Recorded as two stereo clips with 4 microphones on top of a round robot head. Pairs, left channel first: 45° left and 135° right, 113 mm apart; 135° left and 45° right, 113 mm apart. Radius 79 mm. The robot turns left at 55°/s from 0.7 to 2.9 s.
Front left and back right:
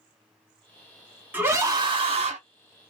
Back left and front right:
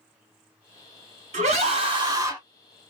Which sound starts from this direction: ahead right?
A scream, at 1.3 s.